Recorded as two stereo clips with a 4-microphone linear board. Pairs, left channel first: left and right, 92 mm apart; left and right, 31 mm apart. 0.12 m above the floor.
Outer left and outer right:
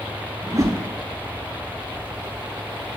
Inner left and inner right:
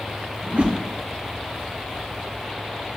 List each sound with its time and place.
0.4 s a whoosh: 40° right (ahead or behind), 0.6 m